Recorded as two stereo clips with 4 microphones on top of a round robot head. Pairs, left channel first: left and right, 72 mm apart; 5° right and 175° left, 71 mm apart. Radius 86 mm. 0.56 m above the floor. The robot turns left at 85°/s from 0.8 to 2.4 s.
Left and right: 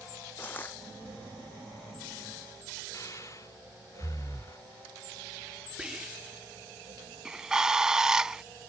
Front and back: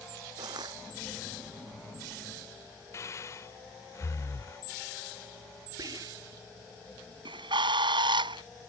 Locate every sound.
0.4 s crushing: 150° left
2.9 s breathing: 40° left
5.8 s whispering: 170° right
7.2 s a bird: 175° right